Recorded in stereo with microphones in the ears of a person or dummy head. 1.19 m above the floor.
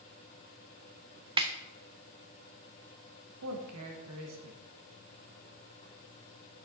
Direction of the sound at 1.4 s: 20° right (ahead or behind).